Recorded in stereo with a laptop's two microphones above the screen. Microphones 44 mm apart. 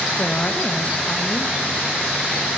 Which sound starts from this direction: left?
A woman speaking, at 0.2 s.